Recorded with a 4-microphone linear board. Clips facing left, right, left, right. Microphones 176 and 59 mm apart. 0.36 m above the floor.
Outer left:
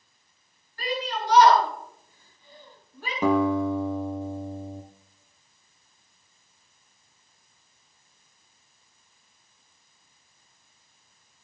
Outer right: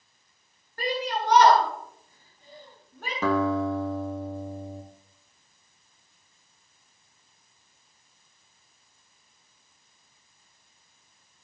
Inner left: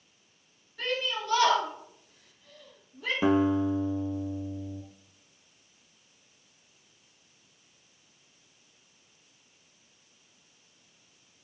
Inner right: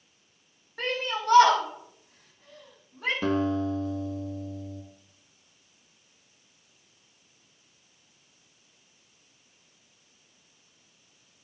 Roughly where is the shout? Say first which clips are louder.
Outer right 2 dB, inner right 2 dB; right.